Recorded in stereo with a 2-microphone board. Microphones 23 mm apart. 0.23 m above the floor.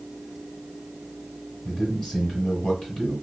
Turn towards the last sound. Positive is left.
turn(degrees=25)  # may be behind; listen again after turning